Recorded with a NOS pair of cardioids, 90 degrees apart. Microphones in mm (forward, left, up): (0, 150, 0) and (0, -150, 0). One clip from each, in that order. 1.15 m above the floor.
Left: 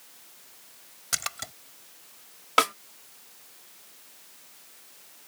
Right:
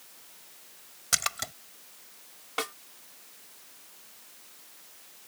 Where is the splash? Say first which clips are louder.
Right 3 dB; 20° right.